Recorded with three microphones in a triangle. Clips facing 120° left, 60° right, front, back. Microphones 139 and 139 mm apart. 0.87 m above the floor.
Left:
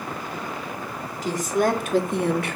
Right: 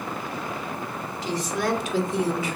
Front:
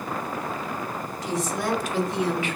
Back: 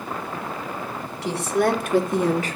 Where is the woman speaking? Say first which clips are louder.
Left 5 dB, back 6 dB; 165° left, 2 m; by 2.6 s 130° left, 1.4 m.